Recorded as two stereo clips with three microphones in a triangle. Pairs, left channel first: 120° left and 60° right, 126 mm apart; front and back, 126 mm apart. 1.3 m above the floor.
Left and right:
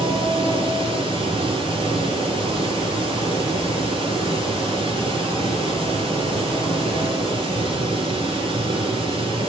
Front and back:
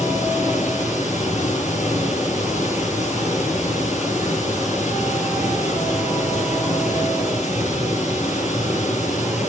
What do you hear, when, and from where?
0.0 s running water: 15° right, 9.5 m